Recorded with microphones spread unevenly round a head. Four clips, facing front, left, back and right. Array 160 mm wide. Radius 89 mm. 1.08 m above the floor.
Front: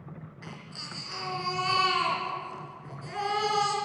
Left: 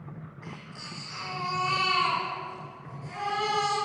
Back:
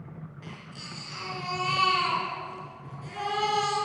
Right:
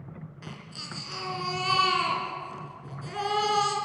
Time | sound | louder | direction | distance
0.4 | a baby crying | even, even | 80° right | 4.5 m